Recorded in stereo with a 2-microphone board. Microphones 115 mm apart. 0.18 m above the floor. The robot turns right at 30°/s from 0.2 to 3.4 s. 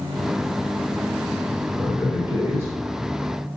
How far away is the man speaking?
About 1.4 m.